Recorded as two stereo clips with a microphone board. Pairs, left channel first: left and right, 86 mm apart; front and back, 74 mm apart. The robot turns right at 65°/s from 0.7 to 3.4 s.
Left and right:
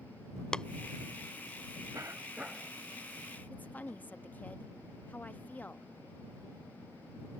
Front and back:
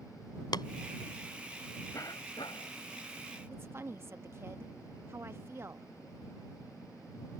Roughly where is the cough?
Ahead right.